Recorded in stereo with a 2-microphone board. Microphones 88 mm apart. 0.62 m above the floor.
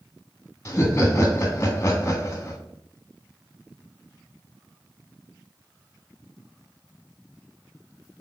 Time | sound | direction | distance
0.7 | laughter | 30° left (ahead or behind) | 0.9 m